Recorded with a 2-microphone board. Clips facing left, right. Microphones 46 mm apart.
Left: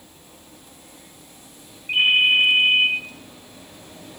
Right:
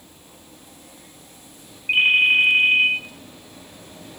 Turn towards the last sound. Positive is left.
turn(degrees=-40)  # may be behind; listen again after turning